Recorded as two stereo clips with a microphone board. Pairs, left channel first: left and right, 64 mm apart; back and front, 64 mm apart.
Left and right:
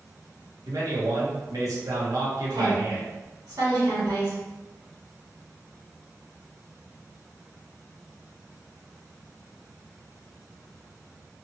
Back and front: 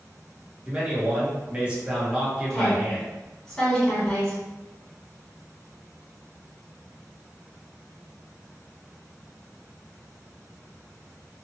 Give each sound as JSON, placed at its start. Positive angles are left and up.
{"t": 0.7, "sound": "a man speaking", "azimuth_deg": -70, "distance_m": 1.0}
{"t": 2.5, "sound": "a woman speaking", "azimuth_deg": -100, "distance_m": 1.6}